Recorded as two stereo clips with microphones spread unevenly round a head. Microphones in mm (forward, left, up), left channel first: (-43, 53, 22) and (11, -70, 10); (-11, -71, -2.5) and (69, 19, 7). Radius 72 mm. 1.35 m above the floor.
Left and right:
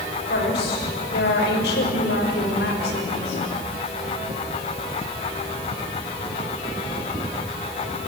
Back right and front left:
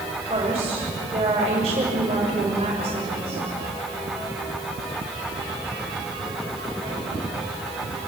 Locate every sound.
0.3 s a woman speaking: 100° left, 6 m